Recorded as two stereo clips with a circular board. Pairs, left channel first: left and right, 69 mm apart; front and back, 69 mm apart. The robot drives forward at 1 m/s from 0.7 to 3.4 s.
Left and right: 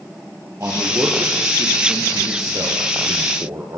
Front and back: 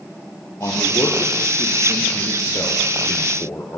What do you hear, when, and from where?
0.6 s a man speaking: 45° right, 7.5 m; by 3.8 s 65° right, 6 m